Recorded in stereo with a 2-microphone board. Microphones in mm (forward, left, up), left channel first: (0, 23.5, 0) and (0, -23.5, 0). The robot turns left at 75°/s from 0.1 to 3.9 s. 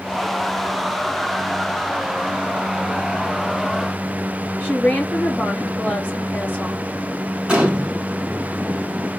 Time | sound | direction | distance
4.6 | a woman speaking | 35° left (ahead or behind) | 3 m
7.5 | a gunshot | 25° right (ahead or behind) | 1.3 m